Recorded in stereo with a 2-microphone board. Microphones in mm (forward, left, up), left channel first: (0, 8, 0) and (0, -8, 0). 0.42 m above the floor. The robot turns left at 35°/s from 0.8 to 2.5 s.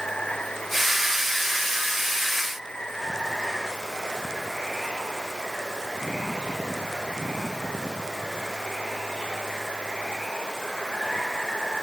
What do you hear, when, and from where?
0.0 s running water: 115° left; by 11.8 s 55° left